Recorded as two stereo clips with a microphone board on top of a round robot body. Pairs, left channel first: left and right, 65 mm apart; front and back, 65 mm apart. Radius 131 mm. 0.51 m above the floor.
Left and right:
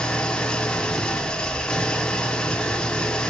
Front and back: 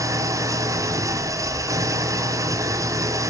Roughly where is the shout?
No shout in this recording.